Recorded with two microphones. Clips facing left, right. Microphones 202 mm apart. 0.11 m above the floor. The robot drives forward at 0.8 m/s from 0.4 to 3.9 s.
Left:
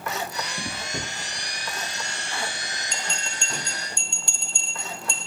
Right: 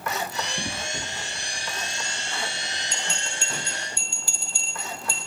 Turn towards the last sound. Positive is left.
turn(degrees=-5)  # may be behind; listen again after turning